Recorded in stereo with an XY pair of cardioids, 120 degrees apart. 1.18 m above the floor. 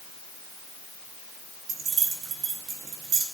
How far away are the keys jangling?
About 1.6 m.